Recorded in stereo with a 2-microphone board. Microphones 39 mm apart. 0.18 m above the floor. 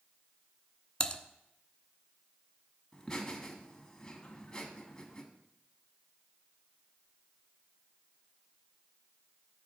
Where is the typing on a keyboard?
25° left (ahead or behind), 0.5 m.